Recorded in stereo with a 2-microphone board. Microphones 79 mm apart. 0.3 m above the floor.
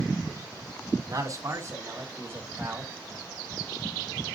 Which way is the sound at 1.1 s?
45° right (ahead or behind).